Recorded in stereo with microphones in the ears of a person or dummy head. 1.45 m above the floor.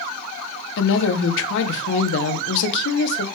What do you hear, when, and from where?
0.8 s a woman speaking: 65° left (ahead or behind), 0.7 m